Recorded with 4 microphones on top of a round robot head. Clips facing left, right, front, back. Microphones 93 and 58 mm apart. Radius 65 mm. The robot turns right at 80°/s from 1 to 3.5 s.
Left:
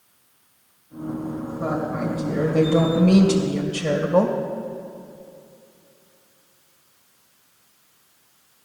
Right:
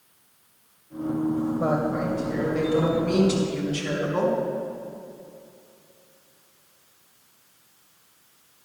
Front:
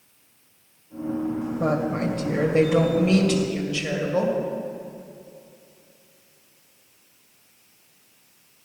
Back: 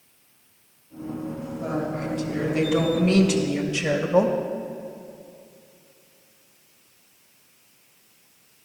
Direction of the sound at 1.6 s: 35° right.